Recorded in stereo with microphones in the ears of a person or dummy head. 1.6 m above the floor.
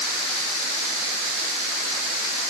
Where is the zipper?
No zipper in this recording.